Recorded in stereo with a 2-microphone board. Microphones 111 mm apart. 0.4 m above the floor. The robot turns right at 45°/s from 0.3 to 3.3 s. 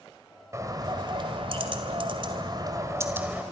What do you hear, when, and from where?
0.5 s a bird: 145° right, 2 m; by 3.4 s 20° right, 2 m